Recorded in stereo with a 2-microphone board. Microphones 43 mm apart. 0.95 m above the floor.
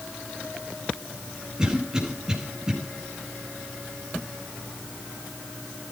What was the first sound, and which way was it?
A cough, 15° right (ahead or behind).